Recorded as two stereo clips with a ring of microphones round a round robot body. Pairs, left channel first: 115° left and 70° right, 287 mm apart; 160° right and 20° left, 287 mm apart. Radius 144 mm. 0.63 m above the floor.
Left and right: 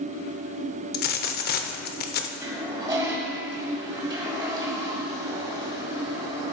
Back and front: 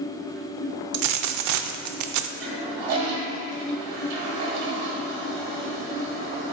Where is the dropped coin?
55° left, 0.5 m.